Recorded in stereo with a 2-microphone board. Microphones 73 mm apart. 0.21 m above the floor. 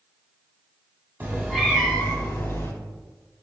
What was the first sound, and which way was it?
A cat meowing, 25° right (ahead or behind).